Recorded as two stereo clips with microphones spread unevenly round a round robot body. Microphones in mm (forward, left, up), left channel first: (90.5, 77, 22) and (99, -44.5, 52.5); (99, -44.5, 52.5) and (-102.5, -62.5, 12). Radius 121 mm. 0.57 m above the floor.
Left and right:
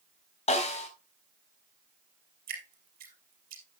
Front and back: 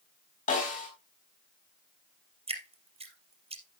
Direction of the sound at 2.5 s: 110° right.